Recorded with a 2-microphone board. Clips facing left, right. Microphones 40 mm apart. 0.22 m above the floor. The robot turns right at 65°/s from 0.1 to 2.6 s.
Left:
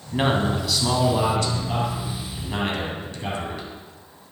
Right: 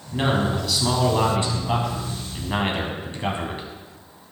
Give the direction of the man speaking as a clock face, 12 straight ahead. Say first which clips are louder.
Left 1 dB; 7 o'clock.